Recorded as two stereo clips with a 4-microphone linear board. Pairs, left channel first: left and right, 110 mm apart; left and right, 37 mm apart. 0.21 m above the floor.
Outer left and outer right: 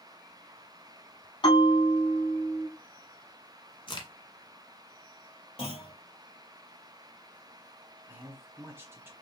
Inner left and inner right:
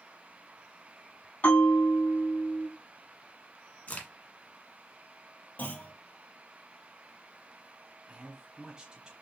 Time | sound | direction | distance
1.4 | a bell | 50° left (ahead or behind) | 3 m
3.9 | a crack | 50° left (ahead or behind) | 1.2 m
5.6 | a clunk | 60° left (ahead or behind) | 3.5 m
8.1 | a man speaking | 20° right (ahead or behind) | 1.3 m